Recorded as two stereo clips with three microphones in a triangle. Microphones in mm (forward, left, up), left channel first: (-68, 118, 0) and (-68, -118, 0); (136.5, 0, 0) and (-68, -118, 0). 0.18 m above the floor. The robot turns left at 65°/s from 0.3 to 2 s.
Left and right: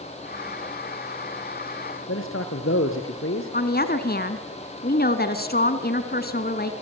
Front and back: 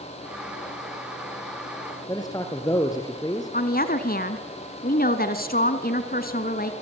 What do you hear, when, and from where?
2.1 s a man speaking: 105° left, 3 m
3.5 s a woman speaking: 65° left, 1.7 m